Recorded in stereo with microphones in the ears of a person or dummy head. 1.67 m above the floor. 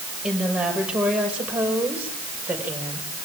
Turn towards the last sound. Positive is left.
turn(degrees=-15)  # may be behind; listen again after turning